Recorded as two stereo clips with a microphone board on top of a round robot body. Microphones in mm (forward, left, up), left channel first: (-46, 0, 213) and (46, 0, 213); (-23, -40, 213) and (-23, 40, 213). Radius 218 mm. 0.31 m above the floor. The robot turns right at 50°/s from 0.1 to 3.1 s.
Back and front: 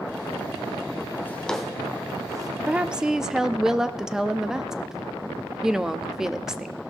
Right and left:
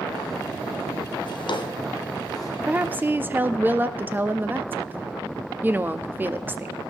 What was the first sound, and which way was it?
A drawer, 110° right.